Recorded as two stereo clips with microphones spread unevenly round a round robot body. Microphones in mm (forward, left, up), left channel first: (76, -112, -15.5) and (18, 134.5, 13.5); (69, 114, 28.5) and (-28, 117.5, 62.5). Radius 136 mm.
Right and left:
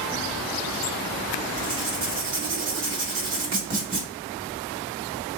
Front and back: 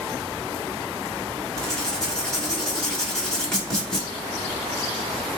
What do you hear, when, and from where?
1.6 s writing: 65° left, 1.6 m